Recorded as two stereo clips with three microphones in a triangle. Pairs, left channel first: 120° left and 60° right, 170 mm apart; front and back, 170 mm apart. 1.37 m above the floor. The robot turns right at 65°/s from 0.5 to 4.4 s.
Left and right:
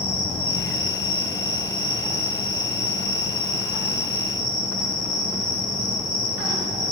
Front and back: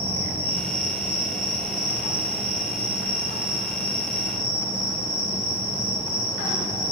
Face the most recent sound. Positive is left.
turn(degrees=-95)